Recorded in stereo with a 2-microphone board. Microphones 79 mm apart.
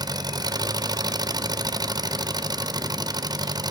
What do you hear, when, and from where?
0.0 s an engine running: 55° right (ahead or behind), 0.8 m